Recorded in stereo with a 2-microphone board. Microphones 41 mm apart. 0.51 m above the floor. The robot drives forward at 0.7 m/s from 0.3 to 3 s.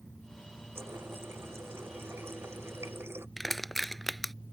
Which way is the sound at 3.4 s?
5° left (ahead or behind).